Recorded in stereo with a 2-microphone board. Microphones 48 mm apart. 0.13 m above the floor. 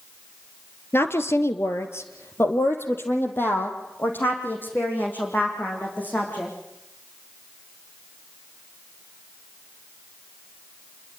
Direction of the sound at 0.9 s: 50° left (ahead or behind).